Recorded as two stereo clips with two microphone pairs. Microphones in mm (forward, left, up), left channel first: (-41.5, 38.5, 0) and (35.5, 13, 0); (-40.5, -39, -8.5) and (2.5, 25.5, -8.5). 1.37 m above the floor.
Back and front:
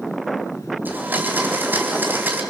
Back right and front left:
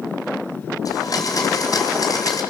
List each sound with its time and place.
0.8 s a blender: 85° right, 3.5 m